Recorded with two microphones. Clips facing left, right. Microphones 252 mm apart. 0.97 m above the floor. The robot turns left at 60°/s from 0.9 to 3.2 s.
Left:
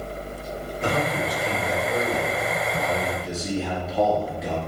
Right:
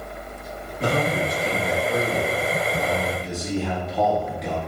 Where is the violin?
No violin in this recording.